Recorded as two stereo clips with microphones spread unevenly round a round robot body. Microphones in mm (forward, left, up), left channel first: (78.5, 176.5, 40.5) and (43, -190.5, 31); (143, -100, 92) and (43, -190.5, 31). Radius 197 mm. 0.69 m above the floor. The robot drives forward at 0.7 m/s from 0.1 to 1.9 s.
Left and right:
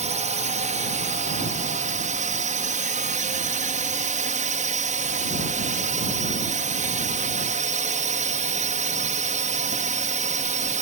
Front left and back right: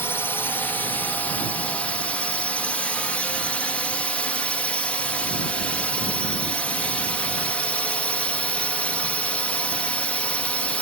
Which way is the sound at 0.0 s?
75° right.